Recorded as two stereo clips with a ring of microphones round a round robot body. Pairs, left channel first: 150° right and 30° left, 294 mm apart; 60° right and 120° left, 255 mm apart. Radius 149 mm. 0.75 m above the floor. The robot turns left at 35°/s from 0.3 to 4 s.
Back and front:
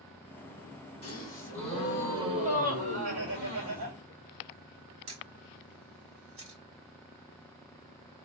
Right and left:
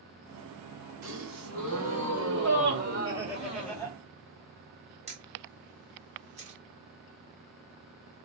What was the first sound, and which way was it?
A gasp, 140° left.